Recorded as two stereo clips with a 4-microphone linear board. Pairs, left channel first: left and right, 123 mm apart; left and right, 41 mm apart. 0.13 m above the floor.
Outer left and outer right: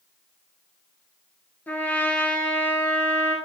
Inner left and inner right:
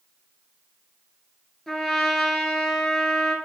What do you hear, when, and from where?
1.7 s a trumpet: 15° left (ahead or behind), 1.1 m